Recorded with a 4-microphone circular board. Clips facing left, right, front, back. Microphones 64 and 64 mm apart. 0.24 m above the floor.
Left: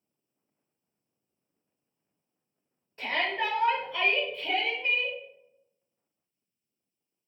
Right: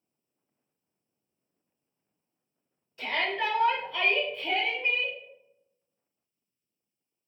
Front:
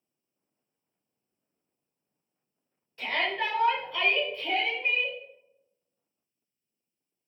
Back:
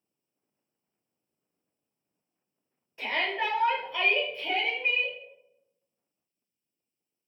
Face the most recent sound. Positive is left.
turn(degrees=-125)